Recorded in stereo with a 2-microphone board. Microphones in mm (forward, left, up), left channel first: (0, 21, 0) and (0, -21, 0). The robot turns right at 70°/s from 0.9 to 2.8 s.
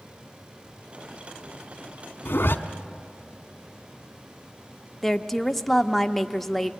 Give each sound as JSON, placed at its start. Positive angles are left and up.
{"t": 2.2, "sound": "a zipper", "side_deg": 75, "distance_m": 1.1}
{"t": 5.0, "sound": "a woman speaking", "side_deg": 5, "distance_m": 0.8}